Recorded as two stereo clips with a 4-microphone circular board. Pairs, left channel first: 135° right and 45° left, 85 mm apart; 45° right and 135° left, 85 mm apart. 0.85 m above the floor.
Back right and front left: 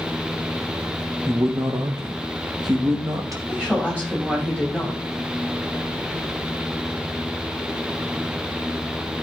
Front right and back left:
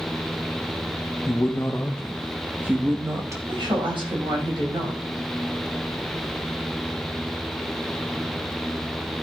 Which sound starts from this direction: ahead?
A man speaking, at 1.3 s.